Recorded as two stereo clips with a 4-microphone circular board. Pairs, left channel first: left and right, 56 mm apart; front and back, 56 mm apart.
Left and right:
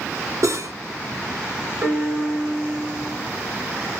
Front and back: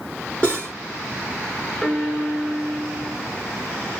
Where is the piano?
90° right, 2.5 m.